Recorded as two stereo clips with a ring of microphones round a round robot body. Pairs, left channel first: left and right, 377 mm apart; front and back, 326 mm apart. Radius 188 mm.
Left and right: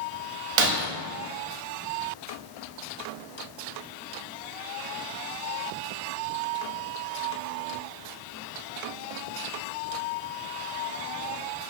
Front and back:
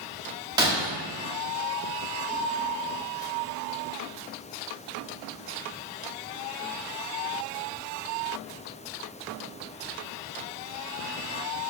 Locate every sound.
0.6 s breaking glass: 100° right, 0.9 m